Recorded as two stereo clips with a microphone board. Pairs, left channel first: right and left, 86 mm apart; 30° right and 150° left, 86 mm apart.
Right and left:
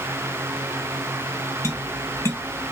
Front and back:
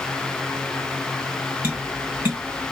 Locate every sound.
1.6 s tapping: 145° right, 1.9 m